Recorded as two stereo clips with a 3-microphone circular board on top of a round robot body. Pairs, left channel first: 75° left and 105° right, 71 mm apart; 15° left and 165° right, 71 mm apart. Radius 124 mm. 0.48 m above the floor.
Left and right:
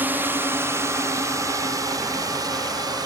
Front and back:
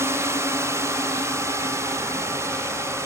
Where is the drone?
150° right; by 3.1 s 115° right.